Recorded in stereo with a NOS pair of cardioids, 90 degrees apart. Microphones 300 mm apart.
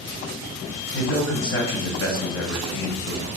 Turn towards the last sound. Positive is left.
turn(degrees=45)